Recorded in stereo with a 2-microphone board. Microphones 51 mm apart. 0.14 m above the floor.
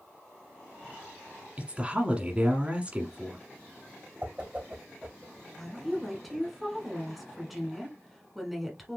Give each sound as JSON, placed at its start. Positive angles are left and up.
{"t": 1.6, "sound": "a woman speaking", "side_deg": -20, "distance_m": 1.3}
{"t": 4.2, "sound": "a whoosh", "side_deg": -20, "distance_m": 2.5}
{"t": 5.6, "sound": "a woman speaking", "side_deg": 0, "distance_m": 1.5}